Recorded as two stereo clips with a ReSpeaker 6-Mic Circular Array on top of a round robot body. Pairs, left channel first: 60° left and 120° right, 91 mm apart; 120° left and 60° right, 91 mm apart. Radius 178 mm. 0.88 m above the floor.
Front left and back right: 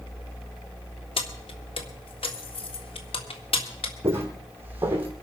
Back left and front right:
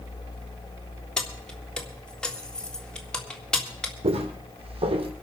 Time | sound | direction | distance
1.2 | keys jangling | 40° left | 1.8 m
4.0 | footsteps | 55° right | 3 m